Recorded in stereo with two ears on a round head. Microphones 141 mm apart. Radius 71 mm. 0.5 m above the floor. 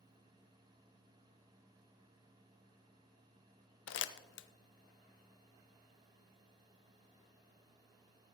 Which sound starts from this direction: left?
Crumpling, at 3.9 s.